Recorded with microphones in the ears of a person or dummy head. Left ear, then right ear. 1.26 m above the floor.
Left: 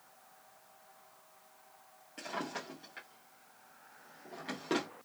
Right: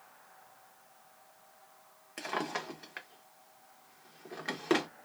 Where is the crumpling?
No crumpling in this recording.